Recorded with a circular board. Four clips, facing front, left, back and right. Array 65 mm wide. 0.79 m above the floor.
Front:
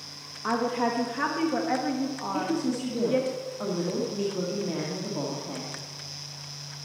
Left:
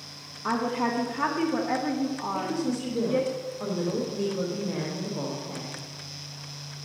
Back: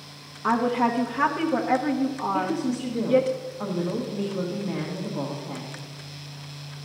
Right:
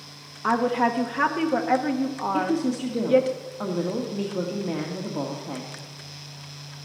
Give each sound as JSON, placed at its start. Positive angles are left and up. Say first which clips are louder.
{"t": 0.4, "sound": "a woman speaking", "louder": "right 5 dB, back 4 dB", "azimuth_deg": -100, "distance_m": 0.9}
{"t": 2.3, "sound": "a woman speaking", "louder": "right 7 dB, back 2 dB", "azimuth_deg": -85, "distance_m": 1.5}